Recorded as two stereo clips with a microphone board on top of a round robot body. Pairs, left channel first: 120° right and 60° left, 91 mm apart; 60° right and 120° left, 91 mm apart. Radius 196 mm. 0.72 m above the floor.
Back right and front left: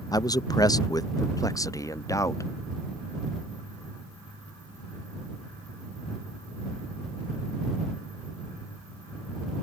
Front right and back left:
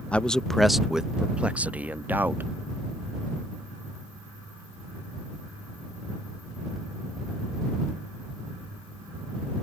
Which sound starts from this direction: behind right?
A man speaking, at 0.1 s.